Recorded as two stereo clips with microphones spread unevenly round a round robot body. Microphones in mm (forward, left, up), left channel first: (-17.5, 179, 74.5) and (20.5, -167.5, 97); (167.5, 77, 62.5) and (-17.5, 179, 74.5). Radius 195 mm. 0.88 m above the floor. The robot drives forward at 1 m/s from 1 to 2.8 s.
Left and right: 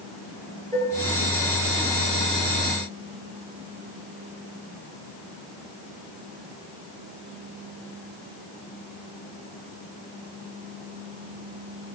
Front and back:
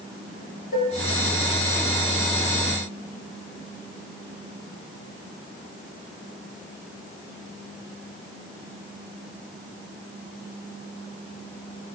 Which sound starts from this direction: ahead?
Dishes clattering, at 0.7 s.